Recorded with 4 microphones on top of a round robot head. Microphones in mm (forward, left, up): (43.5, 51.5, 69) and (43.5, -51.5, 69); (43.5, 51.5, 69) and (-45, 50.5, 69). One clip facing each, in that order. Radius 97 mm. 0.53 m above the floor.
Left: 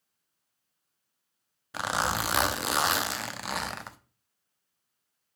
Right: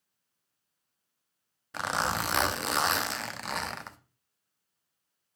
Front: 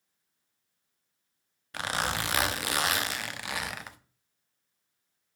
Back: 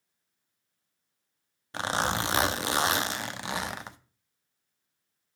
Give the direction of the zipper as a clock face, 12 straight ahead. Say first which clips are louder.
Left 1 dB, back 3 dB; 6 o'clock.